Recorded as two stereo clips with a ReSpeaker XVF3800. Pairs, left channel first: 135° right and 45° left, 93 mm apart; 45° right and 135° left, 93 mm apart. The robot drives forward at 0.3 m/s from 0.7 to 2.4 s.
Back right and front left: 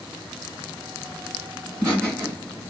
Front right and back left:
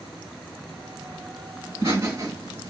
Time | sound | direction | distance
1.6 | laughter | 150° left | 1.8 m